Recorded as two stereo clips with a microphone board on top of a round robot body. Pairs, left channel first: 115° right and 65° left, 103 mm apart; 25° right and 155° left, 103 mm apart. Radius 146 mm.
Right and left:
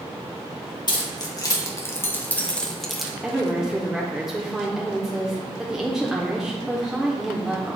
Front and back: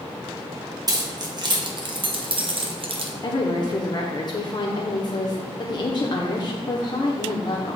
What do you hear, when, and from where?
0.9 s keys jangling: 155° right, 1.7 m; by 3.1 s 155° left, 1.3 m
3.2 s a woman speaking: 15° right, 1.1 m